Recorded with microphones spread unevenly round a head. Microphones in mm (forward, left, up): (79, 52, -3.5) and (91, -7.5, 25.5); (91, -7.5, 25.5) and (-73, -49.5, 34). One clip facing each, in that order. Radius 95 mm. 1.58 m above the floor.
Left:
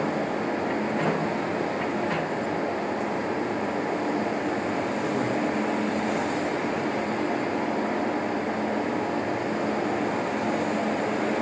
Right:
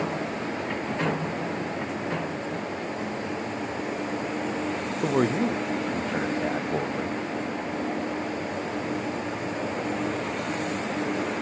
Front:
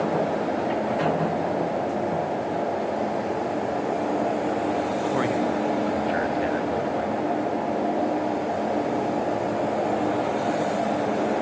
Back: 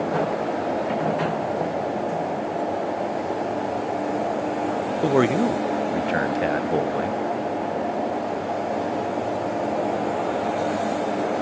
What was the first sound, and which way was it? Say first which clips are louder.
A man speaking: right 6 dB, back 9 dB; 130° right.